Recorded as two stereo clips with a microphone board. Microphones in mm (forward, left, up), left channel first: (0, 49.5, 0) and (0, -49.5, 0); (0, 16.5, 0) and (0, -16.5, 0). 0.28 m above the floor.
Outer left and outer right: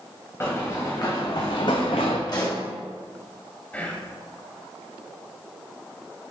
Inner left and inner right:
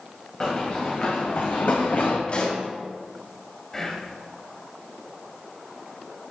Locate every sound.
0.4 s running footsteps: 25° left (ahead or behind), 2.5 m; by 2.2 s 75° left (ahead or behind), 1.3 m
2.3 s a pop: 45° left (ahead or behind), 1.6 m
3.7 s whispering: 15° left (ahead or behind), 1.2 m